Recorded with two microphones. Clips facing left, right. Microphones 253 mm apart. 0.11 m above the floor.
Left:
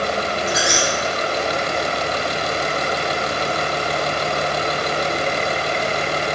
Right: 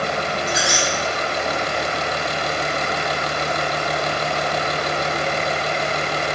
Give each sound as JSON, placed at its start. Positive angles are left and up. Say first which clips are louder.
{"t": 0.5, "sound": "a squeak", "louder": "left 2 dB", "side_deg": -35, "distance_m": 1.2}